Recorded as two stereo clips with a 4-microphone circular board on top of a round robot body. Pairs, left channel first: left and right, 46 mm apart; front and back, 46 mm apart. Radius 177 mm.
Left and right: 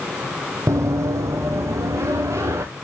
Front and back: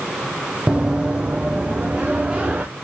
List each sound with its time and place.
0.7 s running footsteps: 105° right, 1.3 m